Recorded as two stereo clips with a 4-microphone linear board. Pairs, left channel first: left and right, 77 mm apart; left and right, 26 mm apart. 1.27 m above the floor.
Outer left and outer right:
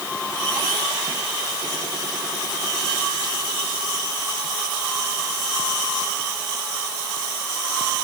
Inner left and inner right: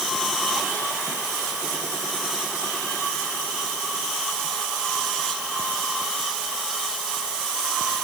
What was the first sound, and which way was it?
Only background noise.